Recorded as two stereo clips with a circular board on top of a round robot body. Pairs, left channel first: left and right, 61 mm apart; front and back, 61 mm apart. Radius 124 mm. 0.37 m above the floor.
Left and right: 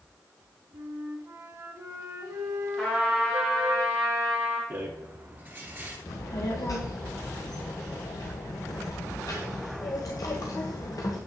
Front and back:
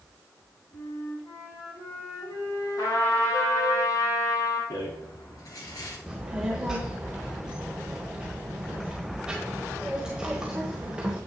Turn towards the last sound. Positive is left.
turn(degrees=100)